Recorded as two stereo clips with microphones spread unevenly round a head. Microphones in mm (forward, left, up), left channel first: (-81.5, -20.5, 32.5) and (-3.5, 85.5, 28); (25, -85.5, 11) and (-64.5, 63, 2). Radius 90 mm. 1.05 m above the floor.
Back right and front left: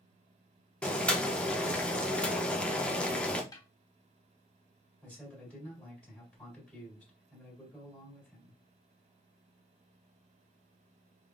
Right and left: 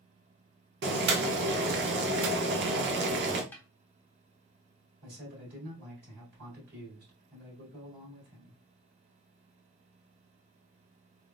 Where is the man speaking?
150° left, 1.8 m.